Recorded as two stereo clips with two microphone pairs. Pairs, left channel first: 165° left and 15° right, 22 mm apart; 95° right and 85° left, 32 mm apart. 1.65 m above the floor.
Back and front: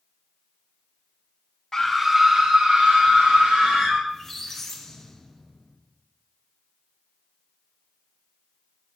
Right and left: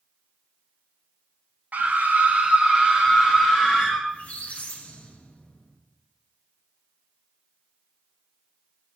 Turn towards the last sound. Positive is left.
turn(degrees=-115)